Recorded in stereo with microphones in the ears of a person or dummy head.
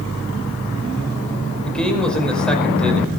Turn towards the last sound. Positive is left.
turn(degrees=5)  # may be behind; listen again after turning